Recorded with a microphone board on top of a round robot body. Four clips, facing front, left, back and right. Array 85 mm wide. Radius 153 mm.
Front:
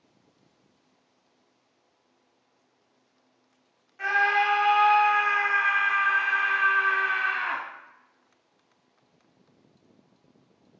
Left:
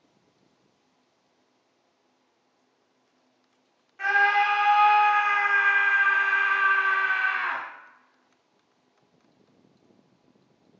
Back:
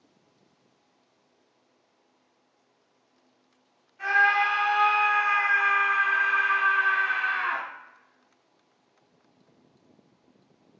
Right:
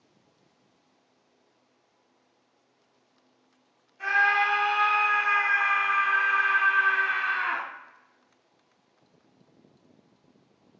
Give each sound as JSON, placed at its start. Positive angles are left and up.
{"t": 4.0, "sound": "a scream", "azimuth_deg": 65, "distance_m": 1.3}